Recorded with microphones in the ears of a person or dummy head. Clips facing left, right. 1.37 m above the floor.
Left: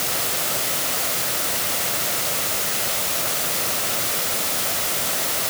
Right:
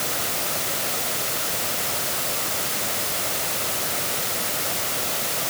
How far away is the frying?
No frying in this recording.